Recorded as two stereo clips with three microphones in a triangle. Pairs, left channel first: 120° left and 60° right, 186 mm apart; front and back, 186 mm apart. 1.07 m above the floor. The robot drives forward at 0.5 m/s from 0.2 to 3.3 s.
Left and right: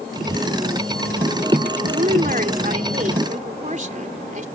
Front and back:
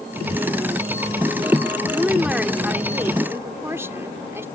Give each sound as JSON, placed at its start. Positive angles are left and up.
{"t": 1.9, "sound": "a woman speaking", "azimuth_deg": -95}